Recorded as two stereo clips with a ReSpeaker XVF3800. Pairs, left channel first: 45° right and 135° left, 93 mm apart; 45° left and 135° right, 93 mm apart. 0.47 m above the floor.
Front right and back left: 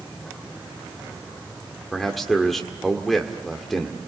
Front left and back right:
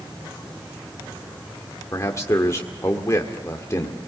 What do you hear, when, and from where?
1.9 s a man speaking: 40° left, 1.5 m